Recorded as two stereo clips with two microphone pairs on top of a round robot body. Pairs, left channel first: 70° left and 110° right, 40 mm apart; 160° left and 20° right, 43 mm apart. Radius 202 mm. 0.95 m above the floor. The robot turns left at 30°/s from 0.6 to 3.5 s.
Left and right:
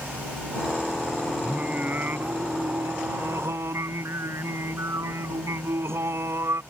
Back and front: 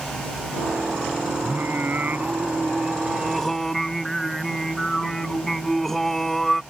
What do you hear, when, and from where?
1.4 s singing: 50° right; by 6.6 s 115° right